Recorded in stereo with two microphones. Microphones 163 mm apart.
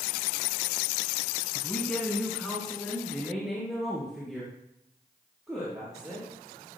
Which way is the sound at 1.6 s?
10° left (ahead or behind).